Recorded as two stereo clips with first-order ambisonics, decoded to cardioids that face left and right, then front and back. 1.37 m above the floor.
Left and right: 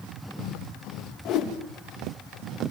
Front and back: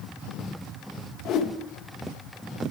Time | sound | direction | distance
1.2 | a whoosh | 45° left | 1.9 m